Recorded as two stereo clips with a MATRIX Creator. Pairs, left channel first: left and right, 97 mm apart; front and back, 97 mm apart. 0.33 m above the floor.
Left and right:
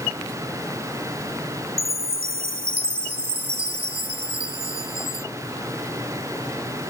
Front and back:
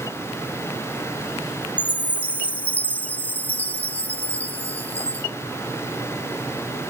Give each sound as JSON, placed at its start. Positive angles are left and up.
{"t": 1.8, "sound": "a chime", "azimuth_deg": -70}